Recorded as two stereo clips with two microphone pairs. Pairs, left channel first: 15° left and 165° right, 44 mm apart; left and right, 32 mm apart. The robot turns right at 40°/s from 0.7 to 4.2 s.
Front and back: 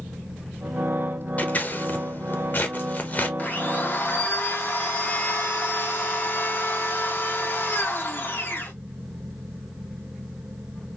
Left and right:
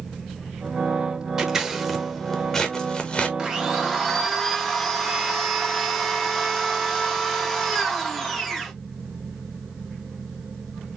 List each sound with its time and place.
1.4 s scissors: 20° right, 0.8 m; by 3.3 s 55° left, 0.8 m
3.4 s a blender: 25° right, 1.0 m; by 8.7 s 5° left, 1.0 m